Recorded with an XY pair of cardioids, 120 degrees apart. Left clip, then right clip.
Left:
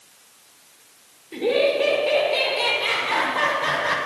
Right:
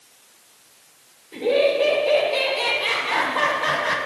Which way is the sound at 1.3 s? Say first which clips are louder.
Right 1 dB; 35° left.